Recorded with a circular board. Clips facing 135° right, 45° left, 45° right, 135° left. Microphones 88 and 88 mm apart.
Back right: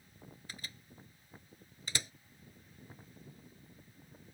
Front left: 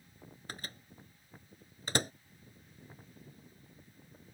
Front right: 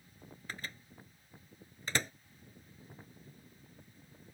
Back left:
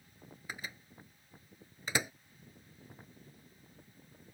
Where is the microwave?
60° left.